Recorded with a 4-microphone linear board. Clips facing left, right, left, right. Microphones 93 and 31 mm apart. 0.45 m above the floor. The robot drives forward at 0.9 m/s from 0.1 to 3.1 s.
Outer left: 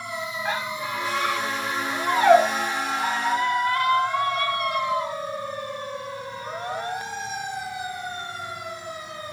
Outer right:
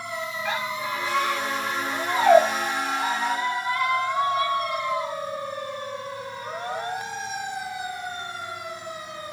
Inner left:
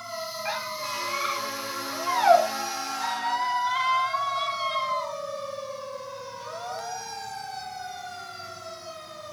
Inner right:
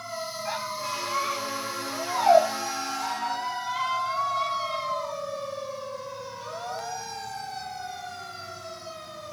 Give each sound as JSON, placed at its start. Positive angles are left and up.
{"t": 0.5, "sound": "a squeak", "side_deg": 40, "distance_m": 2.5}